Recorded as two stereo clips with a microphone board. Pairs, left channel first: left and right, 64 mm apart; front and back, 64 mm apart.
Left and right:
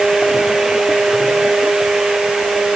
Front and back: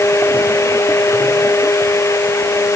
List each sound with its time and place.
Only background noise.